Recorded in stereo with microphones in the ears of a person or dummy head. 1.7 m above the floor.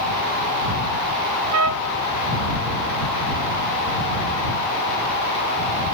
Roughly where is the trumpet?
Right.